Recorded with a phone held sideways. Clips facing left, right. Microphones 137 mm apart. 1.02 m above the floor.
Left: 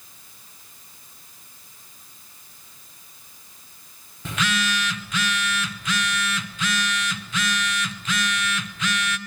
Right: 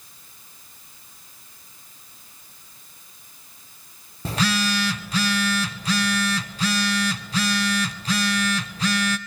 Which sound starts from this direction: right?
A phone buzzing, at 4.2 s.